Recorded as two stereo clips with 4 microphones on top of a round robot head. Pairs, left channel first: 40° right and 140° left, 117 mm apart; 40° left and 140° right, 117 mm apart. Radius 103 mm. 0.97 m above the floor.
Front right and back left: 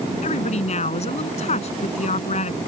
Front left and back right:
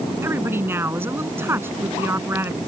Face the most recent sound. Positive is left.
turn(degrees=-70)